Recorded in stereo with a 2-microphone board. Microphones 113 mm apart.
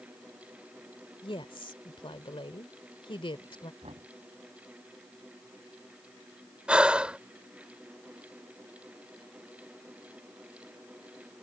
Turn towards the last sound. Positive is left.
turn(degrees=-10)  # may be behind; listen again after turning